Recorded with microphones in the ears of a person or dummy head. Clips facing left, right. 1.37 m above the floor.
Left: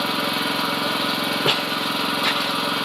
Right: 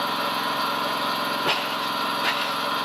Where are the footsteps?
35° left (ahead or behind), 1.8 m; by 2.7 s 25° left (ahead or behind), 2 m.